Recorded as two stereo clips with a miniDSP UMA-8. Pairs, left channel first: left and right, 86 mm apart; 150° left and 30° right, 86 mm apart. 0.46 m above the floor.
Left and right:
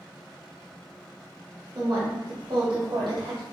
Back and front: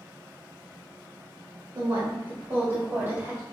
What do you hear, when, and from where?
1.8 s a woman speaking: 50° right, 1.4 m; by 3.4 s 90° right, 2 m